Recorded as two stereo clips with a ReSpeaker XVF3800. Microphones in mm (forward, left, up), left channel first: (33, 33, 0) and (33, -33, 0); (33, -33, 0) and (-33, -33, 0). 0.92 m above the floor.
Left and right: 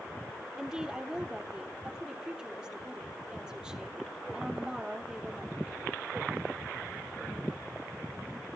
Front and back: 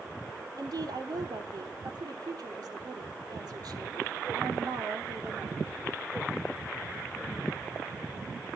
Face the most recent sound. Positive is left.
turn(degrees=-170)